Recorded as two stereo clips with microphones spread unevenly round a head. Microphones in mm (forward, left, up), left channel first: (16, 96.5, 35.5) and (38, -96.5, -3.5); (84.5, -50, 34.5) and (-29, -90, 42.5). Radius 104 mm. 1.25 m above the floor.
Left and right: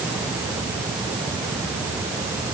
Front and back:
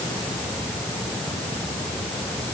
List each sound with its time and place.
Only background noise.